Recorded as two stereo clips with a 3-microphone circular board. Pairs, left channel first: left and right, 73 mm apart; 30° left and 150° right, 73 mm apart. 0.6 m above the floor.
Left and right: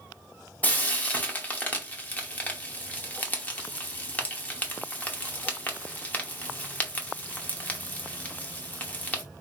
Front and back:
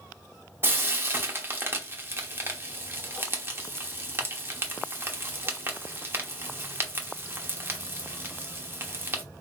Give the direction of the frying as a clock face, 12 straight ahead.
7 o'clock.